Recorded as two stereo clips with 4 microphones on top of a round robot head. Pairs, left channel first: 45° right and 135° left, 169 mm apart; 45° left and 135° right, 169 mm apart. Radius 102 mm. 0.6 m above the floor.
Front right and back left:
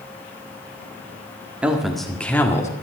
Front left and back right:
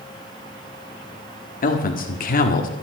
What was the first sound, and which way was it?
A man speaking, 50° left.